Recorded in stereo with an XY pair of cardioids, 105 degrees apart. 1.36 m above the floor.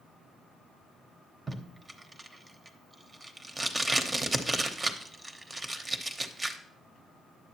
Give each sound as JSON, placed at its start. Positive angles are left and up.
{"t": 1.5, "sound": "tape being pulled", "azimuth_deg": -25, "distance_m": 0.9}